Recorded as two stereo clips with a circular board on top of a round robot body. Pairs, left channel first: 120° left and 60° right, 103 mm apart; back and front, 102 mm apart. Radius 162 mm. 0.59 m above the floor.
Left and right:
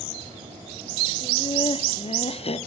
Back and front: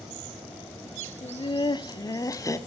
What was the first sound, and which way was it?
Laughter, 155° left.